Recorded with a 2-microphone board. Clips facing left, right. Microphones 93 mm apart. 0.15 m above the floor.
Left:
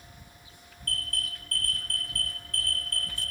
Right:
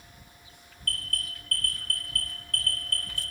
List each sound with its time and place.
0.8 s an alarm: 55° right (ahead or behind), 1.7 m